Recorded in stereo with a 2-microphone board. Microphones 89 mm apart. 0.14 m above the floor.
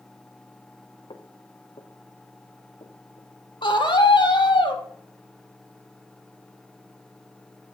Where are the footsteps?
75° left (ahead or behind), 3 m; by 3.3 s 80° left, 4.5 m.